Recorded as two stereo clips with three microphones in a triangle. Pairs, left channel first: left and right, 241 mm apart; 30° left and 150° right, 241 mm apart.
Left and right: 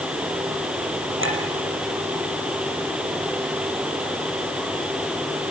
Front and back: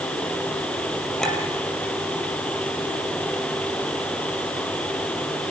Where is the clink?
60° right, 4.5 m.